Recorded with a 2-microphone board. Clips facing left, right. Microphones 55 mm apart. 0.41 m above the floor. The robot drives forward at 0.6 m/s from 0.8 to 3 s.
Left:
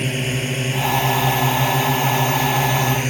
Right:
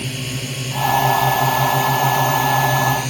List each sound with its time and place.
0.0 s a drone: 30° left (ahead or behind); by 3.1 s 35° left (ahead or behind)